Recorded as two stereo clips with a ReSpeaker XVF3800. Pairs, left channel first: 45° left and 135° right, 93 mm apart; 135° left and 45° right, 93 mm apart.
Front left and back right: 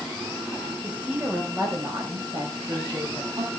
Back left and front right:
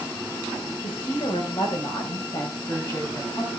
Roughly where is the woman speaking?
Behind left.